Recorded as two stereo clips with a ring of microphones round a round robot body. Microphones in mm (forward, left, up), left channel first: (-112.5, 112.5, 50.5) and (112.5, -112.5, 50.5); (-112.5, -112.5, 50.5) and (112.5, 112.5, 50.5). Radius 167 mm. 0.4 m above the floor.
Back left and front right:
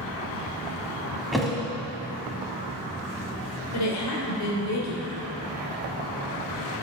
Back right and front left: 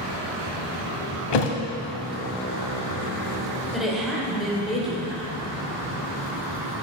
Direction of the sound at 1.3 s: 135° right.